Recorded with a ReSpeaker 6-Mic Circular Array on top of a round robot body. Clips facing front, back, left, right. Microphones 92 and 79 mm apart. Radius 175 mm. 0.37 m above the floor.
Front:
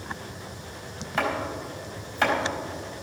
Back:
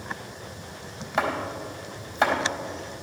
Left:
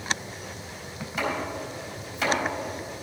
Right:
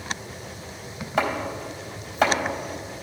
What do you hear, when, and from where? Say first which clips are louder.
1.2 s chopping: back 1 dB, right 4 dB; 120° right, 3.5 m